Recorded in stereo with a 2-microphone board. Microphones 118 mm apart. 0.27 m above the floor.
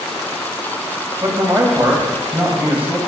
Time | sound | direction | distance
1.2 | a man speaking | 25° right (ahead or behind) | 1.5 m